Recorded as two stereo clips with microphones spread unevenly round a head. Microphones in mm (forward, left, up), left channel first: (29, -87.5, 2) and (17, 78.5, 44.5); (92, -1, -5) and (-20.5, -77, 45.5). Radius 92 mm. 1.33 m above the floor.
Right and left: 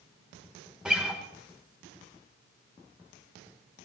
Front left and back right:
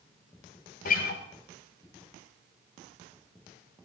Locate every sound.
0.8 s a guitar: 35° left, 1.1 m